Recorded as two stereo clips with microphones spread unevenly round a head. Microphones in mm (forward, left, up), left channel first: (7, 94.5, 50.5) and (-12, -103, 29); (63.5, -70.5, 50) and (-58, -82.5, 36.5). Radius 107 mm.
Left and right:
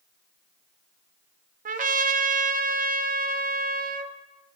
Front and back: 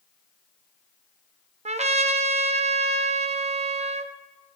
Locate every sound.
1.6 s a trumpet: 145° right, 0.7 m